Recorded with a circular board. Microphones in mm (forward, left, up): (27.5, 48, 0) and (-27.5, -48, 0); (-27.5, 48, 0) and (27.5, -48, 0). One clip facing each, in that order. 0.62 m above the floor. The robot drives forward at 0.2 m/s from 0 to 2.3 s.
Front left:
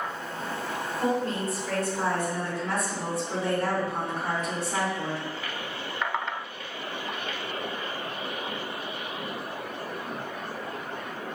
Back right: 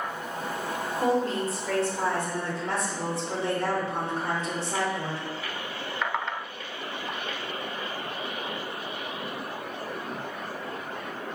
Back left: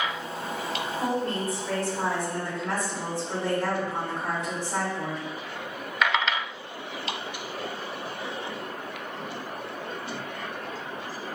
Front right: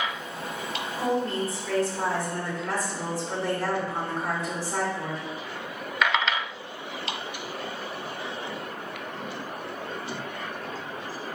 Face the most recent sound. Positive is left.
turn(degrees=-175)